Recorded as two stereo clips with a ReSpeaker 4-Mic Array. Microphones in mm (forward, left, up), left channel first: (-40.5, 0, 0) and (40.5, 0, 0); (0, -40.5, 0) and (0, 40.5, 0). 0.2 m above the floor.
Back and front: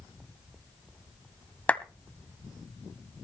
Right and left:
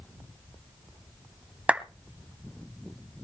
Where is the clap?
140° left, 1.0 m.